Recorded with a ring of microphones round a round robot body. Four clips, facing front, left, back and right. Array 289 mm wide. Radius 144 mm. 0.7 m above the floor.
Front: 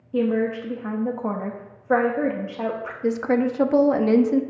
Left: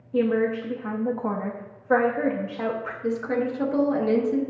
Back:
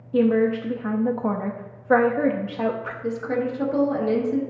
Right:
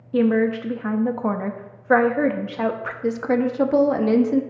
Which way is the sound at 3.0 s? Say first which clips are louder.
Right 5 dB, front 5 dB; 40° right.